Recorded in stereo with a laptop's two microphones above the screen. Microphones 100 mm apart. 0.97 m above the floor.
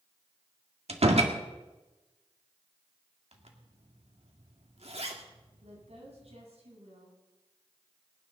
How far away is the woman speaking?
About 8 m.